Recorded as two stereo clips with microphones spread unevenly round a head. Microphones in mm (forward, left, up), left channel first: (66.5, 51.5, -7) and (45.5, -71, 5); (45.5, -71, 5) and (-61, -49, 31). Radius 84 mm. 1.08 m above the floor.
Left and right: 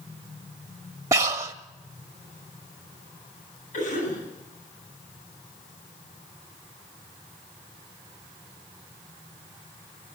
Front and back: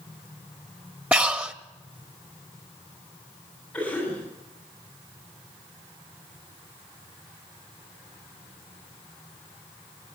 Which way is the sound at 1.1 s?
145° right.